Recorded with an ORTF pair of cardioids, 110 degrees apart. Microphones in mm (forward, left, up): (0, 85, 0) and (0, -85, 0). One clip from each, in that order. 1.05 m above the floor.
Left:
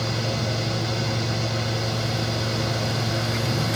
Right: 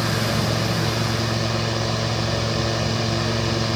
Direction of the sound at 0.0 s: 20° right.